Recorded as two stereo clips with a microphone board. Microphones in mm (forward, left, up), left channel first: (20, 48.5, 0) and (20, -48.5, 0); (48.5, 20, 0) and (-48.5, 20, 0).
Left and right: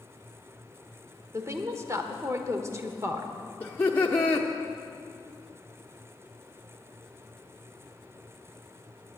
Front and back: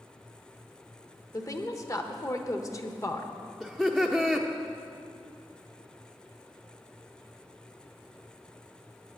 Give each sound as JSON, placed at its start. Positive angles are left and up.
{"t": 1.3, "sound": "a woman speaking", "azimuth_deg": -40, "distance_m": 1.1}
{"t": 3.6, "sound": "laughter", "azimuth_deg": 85, "distance_m": 0.9}